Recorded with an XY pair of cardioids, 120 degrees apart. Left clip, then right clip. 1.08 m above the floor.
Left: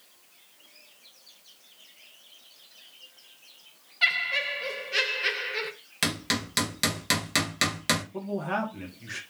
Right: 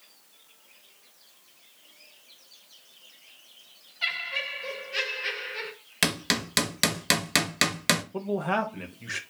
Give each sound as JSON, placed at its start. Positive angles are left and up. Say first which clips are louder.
{"t": 4.0, "sound": "laughter", "louder": "left 5 dB", "azimuth_deg": 45, "distance_m": 0.9}
{"t": 6.0, "sound": "hammering", "louder": "right 2 dB", "azimuth_deg": -25, "distance_m": 0.7}
{"t": 8.1, "sound": "a man speaking", "louder": "right 3 dB", "azimuth_deg": -35, "distance_m": 0.7}